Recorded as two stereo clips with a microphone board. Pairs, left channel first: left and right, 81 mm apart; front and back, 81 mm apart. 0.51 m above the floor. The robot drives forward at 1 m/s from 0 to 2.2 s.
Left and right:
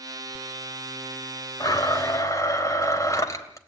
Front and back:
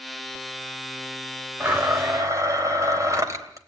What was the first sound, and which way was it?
A blender, 120° left.